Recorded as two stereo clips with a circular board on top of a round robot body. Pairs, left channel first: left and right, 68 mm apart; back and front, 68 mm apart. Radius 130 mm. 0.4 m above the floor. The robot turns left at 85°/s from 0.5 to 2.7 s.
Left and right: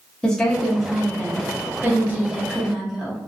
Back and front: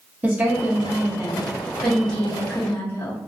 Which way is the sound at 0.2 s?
25° left.